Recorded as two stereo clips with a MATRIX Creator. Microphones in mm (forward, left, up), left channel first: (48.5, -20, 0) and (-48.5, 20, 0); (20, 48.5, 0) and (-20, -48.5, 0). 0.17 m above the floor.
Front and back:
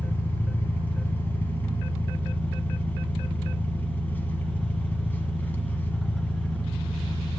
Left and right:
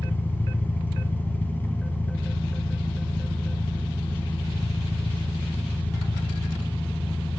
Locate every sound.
0.0 s an engine running: 25° left, 1.5 m